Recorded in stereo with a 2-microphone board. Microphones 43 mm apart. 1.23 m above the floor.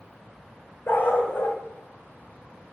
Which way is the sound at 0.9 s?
50° left (ahead or behind).